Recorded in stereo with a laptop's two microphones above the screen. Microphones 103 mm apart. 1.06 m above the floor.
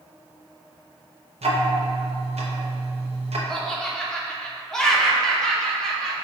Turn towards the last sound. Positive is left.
turn(degrees=5)  # may be behind; listen again after turning